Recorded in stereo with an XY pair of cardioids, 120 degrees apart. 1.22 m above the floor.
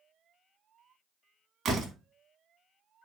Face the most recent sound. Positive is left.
turn(degrees=-50)